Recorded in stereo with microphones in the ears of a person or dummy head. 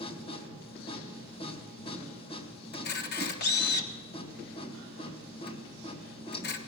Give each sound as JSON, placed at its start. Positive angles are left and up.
{"t": 0.0, "sound": "a machine running", "side_deg": 25, "distance_m": 1.9}
{"t": 2.7, "sound": "a camera shutter", "side_deg": 55, "distance_m": 1.3}